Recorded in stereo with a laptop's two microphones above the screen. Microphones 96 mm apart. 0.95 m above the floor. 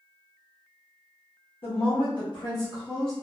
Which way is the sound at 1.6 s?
65° left (ahead or behind).